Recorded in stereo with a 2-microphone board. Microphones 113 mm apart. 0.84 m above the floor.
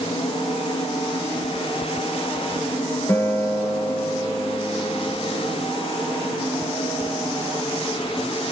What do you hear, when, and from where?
3.1 s a guitar: 25° left (ahead or behind), 1.0 m